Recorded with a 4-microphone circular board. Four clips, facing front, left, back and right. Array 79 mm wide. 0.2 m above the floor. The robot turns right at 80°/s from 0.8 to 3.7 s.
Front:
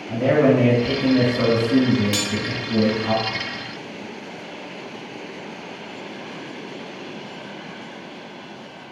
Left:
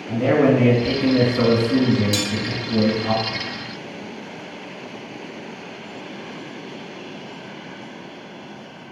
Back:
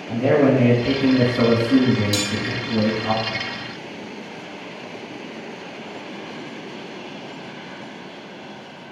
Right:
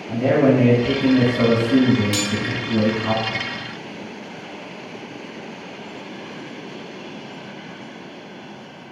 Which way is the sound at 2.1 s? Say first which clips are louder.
Even, back 1 dB; 40° right.